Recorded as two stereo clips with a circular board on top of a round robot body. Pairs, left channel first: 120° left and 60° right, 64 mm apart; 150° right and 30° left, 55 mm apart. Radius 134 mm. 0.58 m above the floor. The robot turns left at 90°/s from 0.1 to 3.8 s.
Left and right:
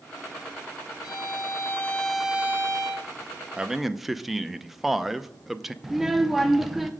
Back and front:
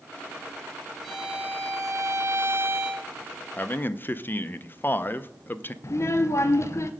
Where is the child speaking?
145° right, 0.6 m.